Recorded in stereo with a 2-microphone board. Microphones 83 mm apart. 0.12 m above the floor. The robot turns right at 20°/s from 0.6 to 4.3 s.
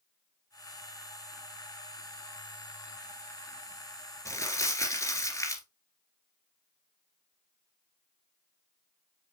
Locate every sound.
4.2 s crumpling: 35° left (ahead or behind), 2 m